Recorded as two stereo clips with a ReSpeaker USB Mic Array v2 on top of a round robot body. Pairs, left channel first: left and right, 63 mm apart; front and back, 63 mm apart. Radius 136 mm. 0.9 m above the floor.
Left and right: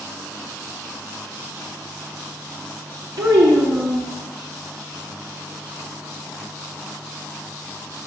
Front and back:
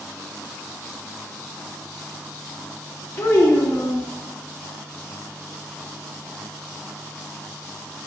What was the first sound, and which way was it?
A child speaking, 65° right.